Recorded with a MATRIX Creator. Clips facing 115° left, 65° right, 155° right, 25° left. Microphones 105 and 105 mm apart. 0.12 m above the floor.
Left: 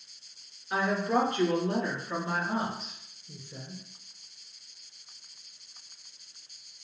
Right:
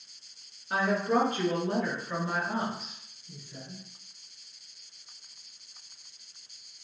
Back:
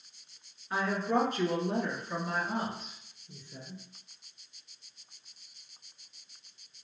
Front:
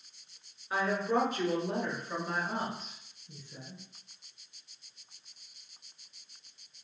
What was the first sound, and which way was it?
A woman speaking, 45° right.